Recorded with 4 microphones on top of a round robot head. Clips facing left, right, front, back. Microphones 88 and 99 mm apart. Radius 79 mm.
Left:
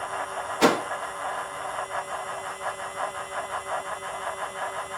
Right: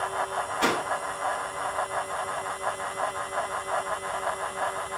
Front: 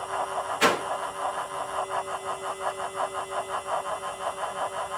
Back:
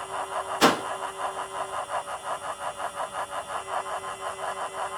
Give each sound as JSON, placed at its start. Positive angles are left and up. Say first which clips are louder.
{"t": 0.6, "sound": "a whoosh", "louder": "left 6 dB, back 3 dB", "azimuth_deg": 125, "distance_m": 1.0}